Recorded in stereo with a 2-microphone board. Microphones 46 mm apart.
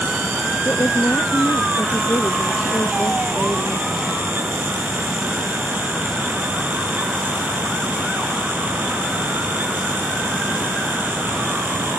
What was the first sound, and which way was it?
A woman speaking, 80° left.